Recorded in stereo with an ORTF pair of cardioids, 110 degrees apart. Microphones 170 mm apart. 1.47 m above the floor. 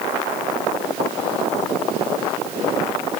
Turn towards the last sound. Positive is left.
No sound to turn to.